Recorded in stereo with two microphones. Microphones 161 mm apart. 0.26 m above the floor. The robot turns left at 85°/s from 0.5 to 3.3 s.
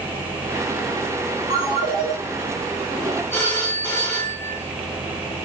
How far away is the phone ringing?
About 0.9 m.